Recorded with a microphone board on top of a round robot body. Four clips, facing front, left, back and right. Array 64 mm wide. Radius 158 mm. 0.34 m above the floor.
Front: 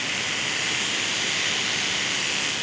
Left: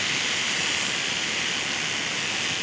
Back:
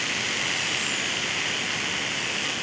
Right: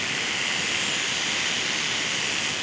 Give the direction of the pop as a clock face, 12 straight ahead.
I don't hear a pop.